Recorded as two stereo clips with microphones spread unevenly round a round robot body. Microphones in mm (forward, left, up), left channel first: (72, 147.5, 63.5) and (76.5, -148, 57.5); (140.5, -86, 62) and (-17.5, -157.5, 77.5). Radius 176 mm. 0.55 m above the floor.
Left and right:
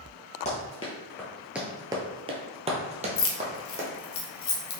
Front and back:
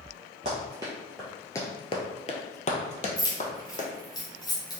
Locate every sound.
0.5 s running footsteps: 155° left, 0.7 m; by 3.9 s 20° right, 1.5 m
3.2 s keys jangling: 75° left, 0.7 m